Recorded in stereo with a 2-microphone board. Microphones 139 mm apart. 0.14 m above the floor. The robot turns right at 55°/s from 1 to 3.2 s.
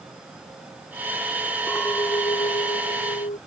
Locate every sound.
1.7 s a clink: 15° left; by 3.4 s 95° left